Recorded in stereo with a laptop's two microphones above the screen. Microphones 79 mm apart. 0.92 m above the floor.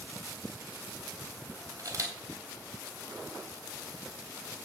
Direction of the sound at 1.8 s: 40° right (ahead or behind).